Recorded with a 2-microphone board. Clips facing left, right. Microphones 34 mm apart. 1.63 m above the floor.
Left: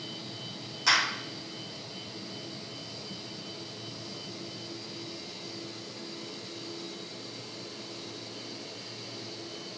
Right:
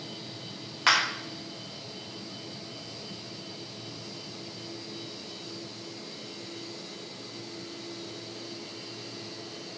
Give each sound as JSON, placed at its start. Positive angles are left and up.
{"t": 0.9, "sound": "a clap", "side_deg": -45, "distance_m": 2.5}